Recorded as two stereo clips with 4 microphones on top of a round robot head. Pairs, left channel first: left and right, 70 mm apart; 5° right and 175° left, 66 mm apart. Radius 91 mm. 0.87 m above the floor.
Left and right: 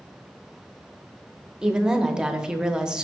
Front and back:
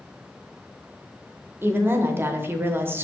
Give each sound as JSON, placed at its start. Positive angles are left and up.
{"t": 1.6, "sound": "a woman speaking", "azimuth_deg": -165, "distance_m": 0.7}